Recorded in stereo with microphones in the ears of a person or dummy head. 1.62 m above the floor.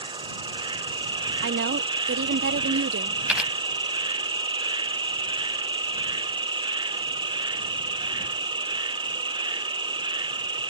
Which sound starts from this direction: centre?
A camera shutter, at 3.3 s.